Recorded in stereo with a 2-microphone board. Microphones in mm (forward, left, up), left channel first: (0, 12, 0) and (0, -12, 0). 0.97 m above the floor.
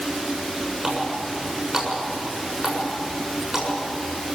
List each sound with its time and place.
0.8 s a running tap: 20° right (ahead or behind), 6.5 m